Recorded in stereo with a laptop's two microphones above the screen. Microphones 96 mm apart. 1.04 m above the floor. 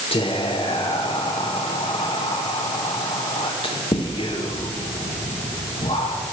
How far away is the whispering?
About 0.9 m.